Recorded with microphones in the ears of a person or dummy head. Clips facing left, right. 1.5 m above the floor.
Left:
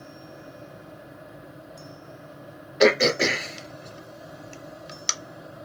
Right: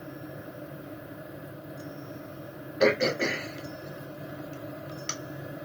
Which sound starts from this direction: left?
Throat clearing, at 2.8 s.